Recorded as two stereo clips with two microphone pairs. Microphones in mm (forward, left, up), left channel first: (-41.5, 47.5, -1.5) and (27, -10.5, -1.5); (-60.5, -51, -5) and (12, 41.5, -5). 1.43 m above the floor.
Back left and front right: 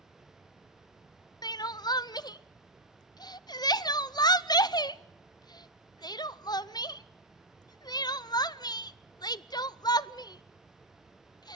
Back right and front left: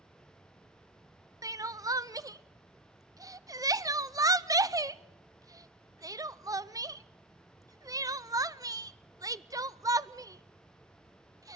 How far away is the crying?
About 0.6 m.